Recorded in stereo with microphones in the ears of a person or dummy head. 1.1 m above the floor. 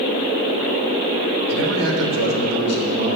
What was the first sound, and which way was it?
A man speaking, 85° right.